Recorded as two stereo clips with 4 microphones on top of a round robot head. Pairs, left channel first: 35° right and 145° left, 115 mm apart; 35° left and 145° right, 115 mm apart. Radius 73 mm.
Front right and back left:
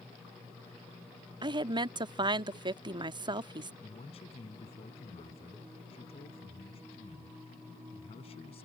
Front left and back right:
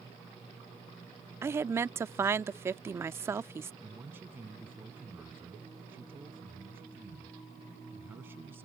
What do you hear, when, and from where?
1.4 s a woman speaking: 160° left
3.8 s a man speaking: 75° right